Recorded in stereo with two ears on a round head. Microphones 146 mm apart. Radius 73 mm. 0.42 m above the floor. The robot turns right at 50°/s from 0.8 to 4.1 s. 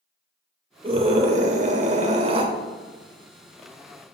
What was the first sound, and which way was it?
A scream, 130° right.